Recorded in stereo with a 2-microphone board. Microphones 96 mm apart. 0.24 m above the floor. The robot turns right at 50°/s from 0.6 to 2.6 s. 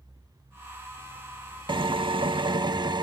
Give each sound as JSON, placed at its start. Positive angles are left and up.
{"t": 1.7, "sound": "a drill", "azimuth_deg": -110, "distance_m": 0.5}